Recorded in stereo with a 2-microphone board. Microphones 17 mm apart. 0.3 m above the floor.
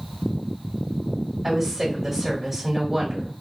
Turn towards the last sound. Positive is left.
turn(degrees=-10)  # may be behind; listen again after turning